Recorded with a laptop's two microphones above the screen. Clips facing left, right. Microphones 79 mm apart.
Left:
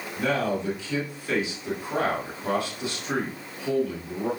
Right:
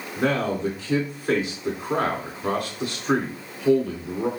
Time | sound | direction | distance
0.2 | a man speaking | 50° right (ahead or behind) | 3 m